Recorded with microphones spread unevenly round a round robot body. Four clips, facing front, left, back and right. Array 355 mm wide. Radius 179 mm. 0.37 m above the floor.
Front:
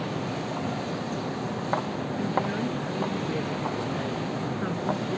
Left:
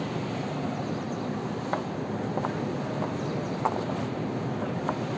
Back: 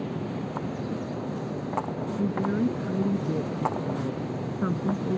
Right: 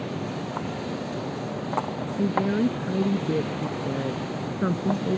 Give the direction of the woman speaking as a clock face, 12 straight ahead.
4 o'clock.